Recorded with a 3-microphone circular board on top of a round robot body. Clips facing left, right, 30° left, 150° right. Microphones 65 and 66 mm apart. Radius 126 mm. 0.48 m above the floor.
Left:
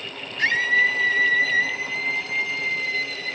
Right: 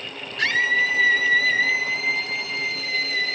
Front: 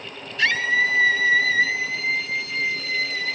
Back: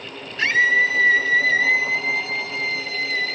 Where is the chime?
No chime in this recording.